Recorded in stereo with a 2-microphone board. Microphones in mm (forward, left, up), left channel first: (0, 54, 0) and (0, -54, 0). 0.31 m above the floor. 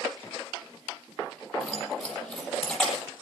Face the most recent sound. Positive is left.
turn(degrees=5)  # may be behind; listen again after turning